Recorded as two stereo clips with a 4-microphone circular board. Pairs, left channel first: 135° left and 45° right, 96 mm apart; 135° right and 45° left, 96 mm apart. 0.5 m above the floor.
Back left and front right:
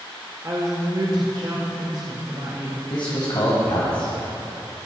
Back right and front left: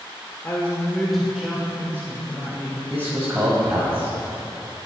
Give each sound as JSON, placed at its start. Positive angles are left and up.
{"t": 0.4, "sound": "a woman speaking", "azimuth_deg": -80, "distance_m": 1.5}
{"t": 2.9, "sound": "a man speaking", "azimuth_deg": 110, "distance_m": 2.5}